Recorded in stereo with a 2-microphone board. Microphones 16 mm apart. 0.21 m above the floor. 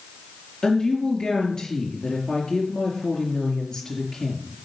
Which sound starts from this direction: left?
A woman speaking, at 0.6 s.